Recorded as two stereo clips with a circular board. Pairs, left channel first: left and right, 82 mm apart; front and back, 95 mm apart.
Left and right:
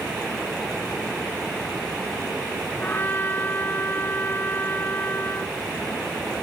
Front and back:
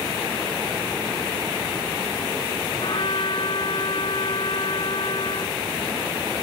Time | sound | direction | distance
2.8 | a trumpet | 25° left | ?